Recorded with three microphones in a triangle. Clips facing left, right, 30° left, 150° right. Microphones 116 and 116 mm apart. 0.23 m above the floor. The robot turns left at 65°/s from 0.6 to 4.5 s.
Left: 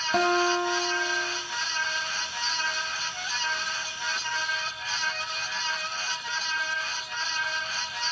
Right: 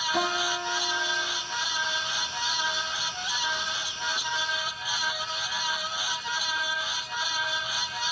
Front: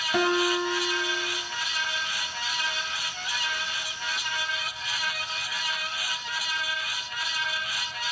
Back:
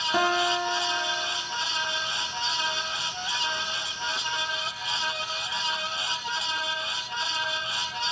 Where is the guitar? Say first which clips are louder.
Left 7 dB, front 1 dB; 130° left, 1.4 m; by 1.4 s 80° left, 1.4 m.